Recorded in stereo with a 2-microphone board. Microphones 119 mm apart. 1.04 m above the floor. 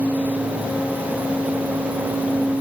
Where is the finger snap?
I don't hear a finger snap.